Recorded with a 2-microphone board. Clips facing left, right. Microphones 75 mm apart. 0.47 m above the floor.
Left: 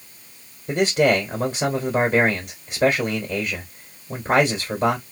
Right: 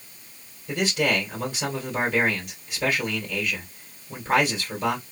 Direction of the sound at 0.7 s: 45° left (ahead or behind).